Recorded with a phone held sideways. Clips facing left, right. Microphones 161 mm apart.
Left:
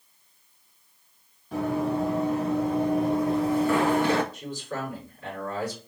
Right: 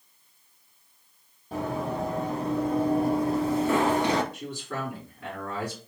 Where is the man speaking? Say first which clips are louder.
Left 1 dB; 70° right (ahead or behind), 3 m.